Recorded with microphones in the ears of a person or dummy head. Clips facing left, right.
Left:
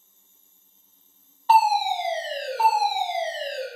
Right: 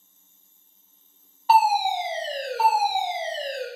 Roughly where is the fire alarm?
Centre.